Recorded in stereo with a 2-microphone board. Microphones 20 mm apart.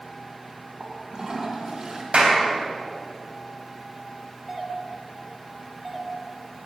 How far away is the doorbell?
About 1.3 m.